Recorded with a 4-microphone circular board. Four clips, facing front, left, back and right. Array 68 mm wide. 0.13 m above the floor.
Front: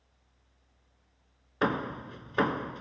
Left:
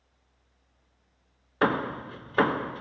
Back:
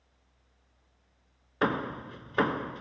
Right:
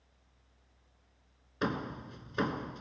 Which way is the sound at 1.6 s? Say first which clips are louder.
Left 9 dB, even; 95° left.